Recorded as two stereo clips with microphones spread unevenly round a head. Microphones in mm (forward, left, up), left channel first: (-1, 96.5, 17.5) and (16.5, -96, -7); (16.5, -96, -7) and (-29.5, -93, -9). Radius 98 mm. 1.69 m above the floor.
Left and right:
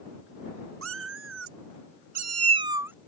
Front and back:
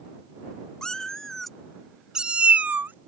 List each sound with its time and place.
0.8 s a cat meowing: 75° right; by 2.9 s 170° right